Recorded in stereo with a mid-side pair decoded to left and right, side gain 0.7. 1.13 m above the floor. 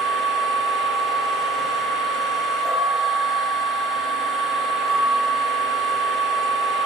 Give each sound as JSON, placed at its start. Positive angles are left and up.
{"t": 0.0, "sound": "a machine running", "azimuth_deg": -15, "distance_m": 1.3}